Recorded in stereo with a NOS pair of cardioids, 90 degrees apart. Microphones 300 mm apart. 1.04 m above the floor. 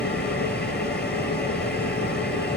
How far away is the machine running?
About 6 m.